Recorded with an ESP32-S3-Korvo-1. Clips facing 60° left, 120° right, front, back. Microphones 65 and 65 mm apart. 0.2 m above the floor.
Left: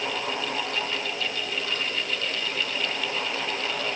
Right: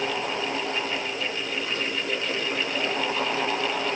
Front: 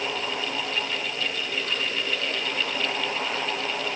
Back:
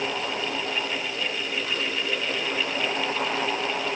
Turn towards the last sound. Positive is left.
No sound to turn to.